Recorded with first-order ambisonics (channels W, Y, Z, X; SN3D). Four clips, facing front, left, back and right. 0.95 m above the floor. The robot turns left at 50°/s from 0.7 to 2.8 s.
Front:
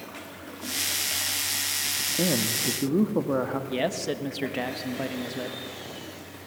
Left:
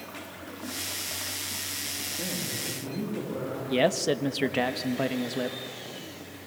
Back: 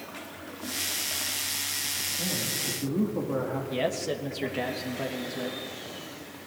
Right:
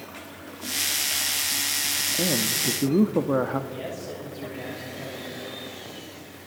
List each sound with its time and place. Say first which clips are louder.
2.2 s a man speaking: right 9 dB, front 5 dB; 35° right, 1.4 m; by 3.6 s 65° right, 1.4 m
3.7 s a man speaking: left 10 dB, back 1 dB; 75° left, 1.4 m